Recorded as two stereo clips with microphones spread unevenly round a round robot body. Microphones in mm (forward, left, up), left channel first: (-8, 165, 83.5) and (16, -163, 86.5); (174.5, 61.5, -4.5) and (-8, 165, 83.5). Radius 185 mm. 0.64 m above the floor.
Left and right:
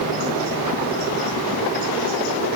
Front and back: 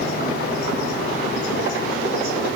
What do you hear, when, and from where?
Only background noise.